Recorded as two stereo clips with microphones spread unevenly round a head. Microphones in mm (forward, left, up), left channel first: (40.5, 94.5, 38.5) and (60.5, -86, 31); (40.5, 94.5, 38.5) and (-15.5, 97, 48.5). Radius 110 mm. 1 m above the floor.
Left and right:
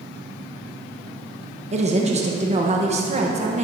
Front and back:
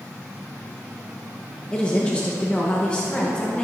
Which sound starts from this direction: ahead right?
A woman speaking, at 1.7 s.